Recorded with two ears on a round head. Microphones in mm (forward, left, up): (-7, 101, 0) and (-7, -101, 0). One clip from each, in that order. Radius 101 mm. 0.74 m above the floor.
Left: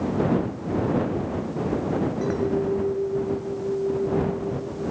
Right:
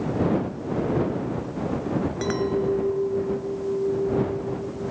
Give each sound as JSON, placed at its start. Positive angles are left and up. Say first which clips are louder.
{"t": 2.2, "sound": "a clink", "louder": "right 2 dB", "side_deg": -85}